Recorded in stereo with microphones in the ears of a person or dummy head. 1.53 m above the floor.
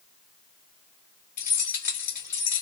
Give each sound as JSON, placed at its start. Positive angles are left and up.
{"t": 1.4, "sound": "keys jangling", "side_deg": 45, "distance_m": 1.8}